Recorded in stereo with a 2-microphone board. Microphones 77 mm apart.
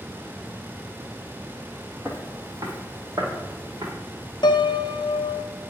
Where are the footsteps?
40° right (ahead or behind), 1.7 m; by 3.9 s 60° right (ahead or behind), 3 m.